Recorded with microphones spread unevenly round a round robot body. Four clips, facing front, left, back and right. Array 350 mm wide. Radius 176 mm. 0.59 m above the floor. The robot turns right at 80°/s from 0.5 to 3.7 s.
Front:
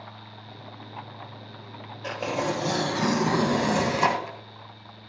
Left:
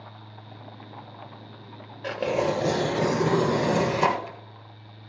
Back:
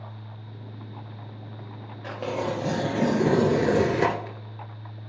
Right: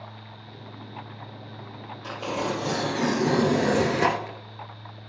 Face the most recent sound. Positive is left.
turn(degrees=-145)